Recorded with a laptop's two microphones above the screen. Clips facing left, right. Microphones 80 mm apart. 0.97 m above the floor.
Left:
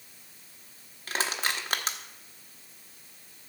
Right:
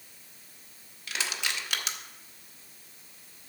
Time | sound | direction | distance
1.1 | crushing | 40° left (ahead or behind) | 1.0 m